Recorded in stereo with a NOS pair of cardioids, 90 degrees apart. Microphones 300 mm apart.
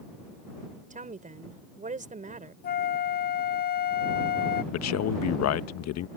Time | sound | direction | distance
0.9 | a woman speaking | 25° right | ?
2.6 | a flute | 35° left | ?
4.7 | a man speaking | 70° left | ?